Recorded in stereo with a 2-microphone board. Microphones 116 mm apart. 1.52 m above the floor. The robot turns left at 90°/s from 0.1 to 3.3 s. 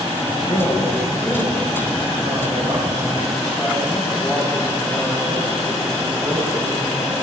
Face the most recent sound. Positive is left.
turn(degrees=175)